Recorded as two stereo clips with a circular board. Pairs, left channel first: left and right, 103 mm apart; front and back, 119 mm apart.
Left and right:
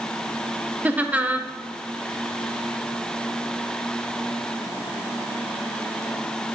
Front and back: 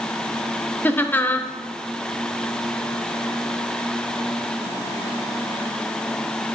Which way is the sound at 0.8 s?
45° right.